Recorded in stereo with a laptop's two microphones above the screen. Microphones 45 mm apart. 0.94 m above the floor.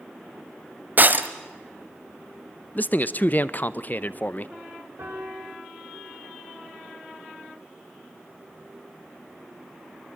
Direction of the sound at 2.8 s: 40° left (ahead or behind).